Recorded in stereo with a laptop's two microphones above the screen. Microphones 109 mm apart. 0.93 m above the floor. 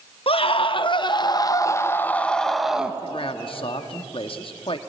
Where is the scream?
60° left (ahead or behind), 1.6 m; by 3.0 s 10° right (ahead or behind), 1.3 m.